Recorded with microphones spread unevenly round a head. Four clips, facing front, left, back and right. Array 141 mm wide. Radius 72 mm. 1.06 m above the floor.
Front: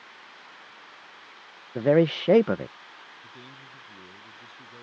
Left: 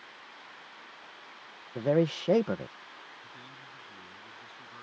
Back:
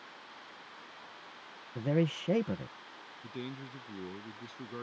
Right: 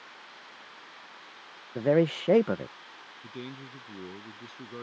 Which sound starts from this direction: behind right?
A man speaking, at 3.2 s.